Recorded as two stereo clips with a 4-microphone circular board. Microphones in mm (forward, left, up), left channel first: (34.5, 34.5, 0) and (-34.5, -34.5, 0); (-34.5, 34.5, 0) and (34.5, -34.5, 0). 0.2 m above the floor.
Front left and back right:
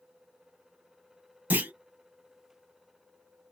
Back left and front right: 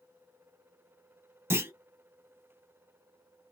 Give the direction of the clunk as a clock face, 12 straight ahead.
3 o'clock.